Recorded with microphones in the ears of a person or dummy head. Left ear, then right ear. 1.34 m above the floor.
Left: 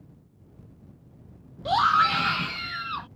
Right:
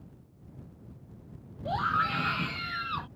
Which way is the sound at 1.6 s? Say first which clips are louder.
Left 8 dB; 50° left (ahead or behind).